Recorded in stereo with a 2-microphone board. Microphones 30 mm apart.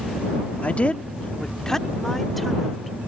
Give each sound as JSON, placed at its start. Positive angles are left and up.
{"t": 0.6, "sound": "a woman speaking", "side_deg": 45}